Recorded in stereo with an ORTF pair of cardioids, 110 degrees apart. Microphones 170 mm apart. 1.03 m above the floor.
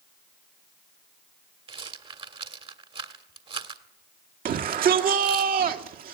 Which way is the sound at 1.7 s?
35° right.